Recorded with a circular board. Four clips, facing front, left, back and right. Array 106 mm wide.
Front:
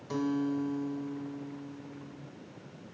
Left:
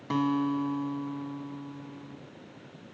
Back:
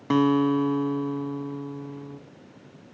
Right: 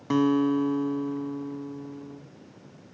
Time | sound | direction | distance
0.1 | a guitar | 170° right | 0.5 m